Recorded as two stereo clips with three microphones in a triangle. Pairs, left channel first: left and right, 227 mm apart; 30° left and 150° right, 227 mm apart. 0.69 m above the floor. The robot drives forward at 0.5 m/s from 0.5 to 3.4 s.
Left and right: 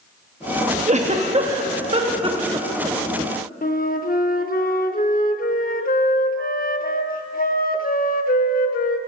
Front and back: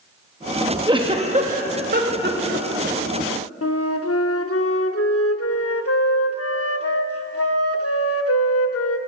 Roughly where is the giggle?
Right.